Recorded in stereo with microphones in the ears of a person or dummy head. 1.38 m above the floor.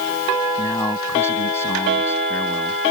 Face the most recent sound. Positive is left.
turn(degrees=20)  # may be behind; listen again after turning